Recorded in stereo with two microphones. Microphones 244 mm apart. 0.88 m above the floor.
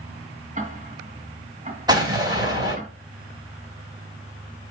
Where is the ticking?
30° right (ahead or behind), 2 m.